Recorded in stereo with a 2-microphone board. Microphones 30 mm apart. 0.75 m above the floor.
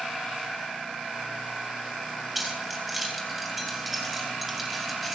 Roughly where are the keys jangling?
Centre.